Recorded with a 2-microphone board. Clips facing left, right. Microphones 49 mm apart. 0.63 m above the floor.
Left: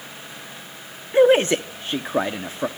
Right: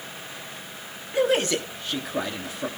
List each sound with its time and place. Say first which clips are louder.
1.1 s a man speaking: left 7 dB; 30° left (ahead or behind), 1.0 m